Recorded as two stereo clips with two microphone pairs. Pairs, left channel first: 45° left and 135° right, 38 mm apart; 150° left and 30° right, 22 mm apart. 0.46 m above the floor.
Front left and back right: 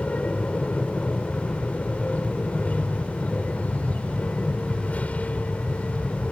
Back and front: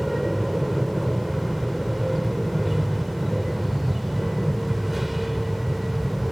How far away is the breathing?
I don't hear breathing.